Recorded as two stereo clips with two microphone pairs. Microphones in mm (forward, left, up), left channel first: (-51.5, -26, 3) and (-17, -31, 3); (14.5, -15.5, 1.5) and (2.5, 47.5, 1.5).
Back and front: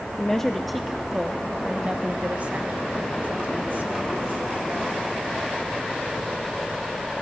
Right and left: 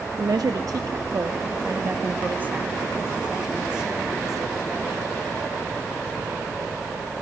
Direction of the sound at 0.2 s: 100° left.